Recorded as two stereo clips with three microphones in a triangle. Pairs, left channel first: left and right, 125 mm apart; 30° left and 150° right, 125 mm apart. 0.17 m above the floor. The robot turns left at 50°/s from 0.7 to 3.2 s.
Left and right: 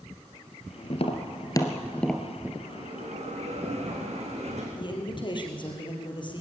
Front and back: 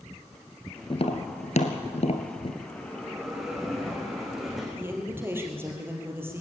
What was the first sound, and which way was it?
Tapping, 65° left.